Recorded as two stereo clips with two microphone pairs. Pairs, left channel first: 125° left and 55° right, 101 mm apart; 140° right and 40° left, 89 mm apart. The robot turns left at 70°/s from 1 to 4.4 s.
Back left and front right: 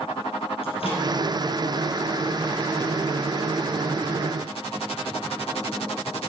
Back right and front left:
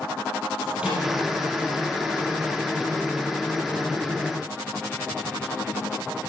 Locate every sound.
0.6 s a microwave: 115° left, 3 m; by 1.1 s 110° left, 3 m